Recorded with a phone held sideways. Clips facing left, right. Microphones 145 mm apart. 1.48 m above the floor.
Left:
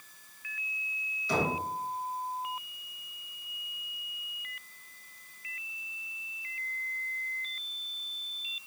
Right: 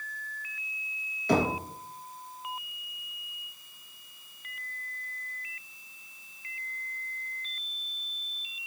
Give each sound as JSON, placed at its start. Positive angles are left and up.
{"t": 1.3, "sound": "knocking", "side_deg": -60, "distance_m": 1.4}